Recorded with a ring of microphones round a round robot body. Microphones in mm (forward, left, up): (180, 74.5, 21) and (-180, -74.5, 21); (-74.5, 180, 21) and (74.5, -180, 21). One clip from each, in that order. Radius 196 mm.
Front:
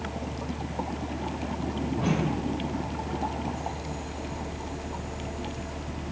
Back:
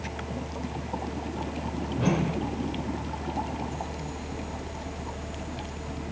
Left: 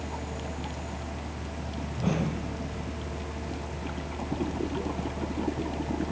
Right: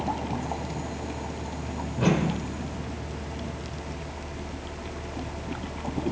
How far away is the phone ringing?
No phone ringing in this recording.